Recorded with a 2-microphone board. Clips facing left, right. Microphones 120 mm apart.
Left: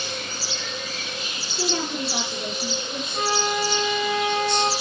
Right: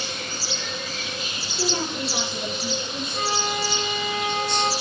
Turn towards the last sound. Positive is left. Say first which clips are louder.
# left 3 dB
turn(degrees=45)  # may be behind; listen again after turning